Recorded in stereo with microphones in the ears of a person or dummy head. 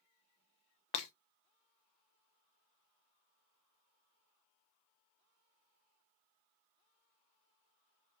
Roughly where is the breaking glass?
Left.